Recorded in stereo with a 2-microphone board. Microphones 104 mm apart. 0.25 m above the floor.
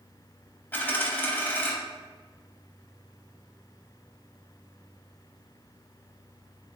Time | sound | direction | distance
0.7 | a dropped coin | 20° left (ahead or behind) | 0.5 m